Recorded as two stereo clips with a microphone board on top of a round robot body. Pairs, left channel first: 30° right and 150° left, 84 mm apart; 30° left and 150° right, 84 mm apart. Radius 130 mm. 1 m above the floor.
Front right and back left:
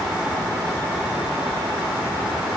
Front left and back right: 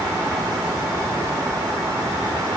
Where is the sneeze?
I don't hear a sneeze.